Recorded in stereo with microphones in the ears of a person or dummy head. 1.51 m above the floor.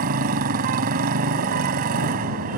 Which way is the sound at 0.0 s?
45° right (ahead or behind).